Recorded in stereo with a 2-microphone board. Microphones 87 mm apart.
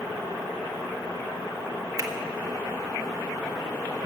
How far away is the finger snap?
About 1.1 m.